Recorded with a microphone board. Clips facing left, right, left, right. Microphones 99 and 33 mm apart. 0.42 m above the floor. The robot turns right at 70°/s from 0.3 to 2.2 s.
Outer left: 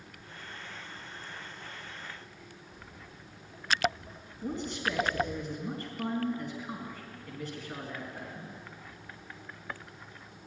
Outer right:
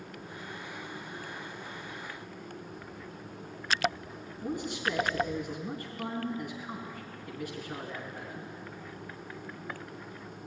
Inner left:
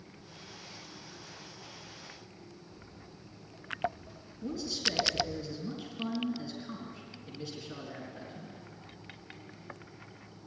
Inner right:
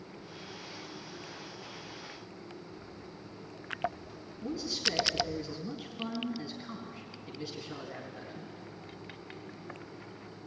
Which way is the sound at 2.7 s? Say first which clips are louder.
Outer right 6 dB, inner right 5 dB; 15° left (ahead or behind).